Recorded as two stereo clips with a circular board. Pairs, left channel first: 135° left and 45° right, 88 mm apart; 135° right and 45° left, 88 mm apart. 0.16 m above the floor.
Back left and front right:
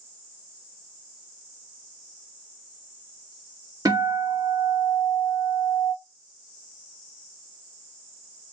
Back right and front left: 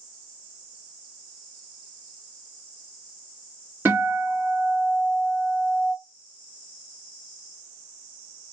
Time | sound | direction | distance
3.9 | a guitar | 15° right | 1.9 m